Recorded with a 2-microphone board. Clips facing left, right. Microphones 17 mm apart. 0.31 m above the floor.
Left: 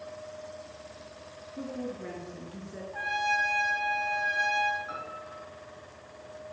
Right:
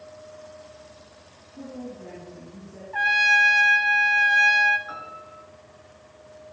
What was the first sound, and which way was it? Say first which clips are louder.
A woman speaking: left 1 dB; 40° left (ahead or behind).